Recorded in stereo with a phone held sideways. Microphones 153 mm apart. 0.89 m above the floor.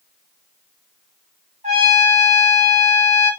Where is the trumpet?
50° right (ahead or behind), 1.6 m.